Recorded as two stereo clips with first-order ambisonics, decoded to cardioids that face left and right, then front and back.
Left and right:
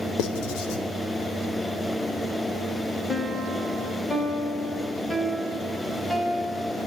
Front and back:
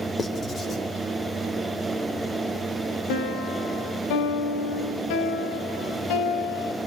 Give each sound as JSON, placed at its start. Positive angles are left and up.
{"t": 0.2, "sound": "writing", "azimuth_deg": 70, "distance_m": 3.5}
{"t": 3.1, "sound": "a piano", "azimuth_deg": 10, "distance_m": 3.5}